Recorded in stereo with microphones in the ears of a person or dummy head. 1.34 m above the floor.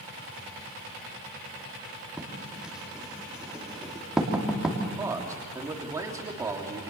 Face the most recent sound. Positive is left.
turn(degrees=-15)  # may be behind; listen again after turning